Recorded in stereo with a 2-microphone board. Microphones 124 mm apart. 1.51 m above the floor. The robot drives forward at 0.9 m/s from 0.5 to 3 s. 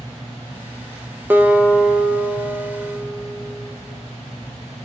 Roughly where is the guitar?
Centre.